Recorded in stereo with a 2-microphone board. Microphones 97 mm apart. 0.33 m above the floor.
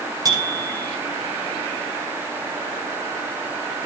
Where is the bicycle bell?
40° right (ahead or behind), 8.5 m.